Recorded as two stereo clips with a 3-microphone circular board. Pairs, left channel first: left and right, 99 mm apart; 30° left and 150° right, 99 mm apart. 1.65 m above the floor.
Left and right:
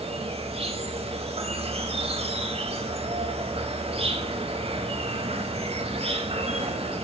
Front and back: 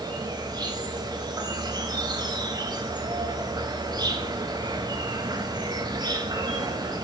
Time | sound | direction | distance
0.0 | an insect | 100° right | 3 m